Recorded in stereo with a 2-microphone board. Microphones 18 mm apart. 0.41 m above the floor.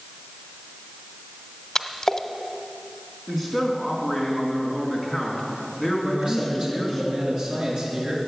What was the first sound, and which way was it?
A splash, 30° left (ahead or behind).